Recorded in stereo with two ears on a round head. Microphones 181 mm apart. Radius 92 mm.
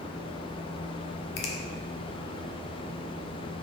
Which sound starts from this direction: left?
A finger snap, at 1.4 s.